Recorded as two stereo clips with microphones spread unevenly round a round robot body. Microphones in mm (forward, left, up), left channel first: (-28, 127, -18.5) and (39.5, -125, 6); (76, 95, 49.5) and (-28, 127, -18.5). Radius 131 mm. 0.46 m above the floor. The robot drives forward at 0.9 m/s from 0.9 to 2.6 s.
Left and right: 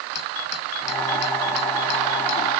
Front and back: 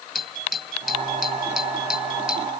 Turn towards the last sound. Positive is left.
turn(degrees=80)